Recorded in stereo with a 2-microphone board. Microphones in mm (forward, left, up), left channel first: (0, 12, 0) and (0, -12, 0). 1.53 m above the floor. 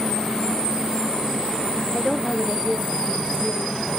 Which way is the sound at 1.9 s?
25° left (ahead or behind).